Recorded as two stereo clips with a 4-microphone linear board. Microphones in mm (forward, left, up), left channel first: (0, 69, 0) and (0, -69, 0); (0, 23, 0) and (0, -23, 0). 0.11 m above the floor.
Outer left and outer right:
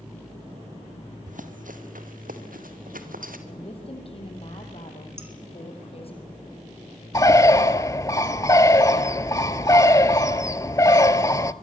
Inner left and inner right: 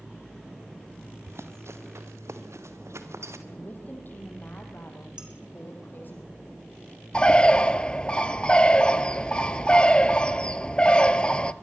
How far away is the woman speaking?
About 4 m.